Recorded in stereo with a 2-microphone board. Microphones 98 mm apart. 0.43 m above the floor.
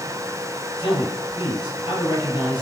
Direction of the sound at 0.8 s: 50° left (ahead or behind).